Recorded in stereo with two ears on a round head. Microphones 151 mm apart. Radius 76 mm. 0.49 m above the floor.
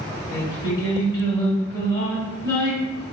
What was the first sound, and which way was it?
Singing, 30° left (ahead or behind).